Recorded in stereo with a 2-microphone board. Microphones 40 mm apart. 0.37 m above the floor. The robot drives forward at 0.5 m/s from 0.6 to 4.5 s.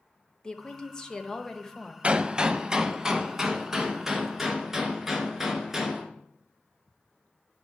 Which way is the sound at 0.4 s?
20° left (ahead or behind).